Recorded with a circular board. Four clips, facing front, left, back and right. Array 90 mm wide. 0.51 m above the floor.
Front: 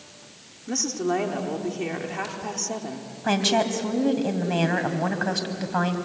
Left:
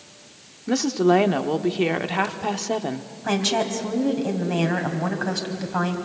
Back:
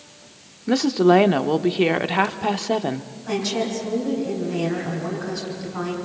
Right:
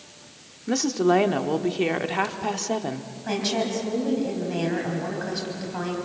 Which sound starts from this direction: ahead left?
A woman speaking, at 3.2 s.